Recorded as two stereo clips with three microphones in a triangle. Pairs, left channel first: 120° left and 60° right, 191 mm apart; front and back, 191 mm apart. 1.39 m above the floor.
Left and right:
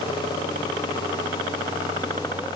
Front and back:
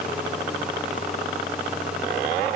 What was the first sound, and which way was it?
Only background noise.